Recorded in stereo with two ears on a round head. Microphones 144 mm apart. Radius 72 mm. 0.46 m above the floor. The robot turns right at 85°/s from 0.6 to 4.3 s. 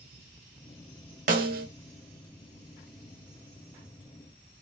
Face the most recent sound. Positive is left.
turn(degrees=145)